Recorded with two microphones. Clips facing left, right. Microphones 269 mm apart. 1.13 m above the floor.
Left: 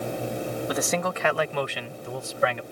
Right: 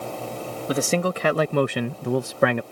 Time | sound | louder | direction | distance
0.7 | a man speaking | right 7 dB | 30° right (ahead or behind) | ?